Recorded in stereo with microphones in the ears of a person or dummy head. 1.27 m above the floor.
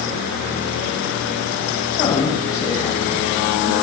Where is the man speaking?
20° left (ahead or behind), 8.5 m; by 3.7 s 10° left (ahead or behind), 9.5 m.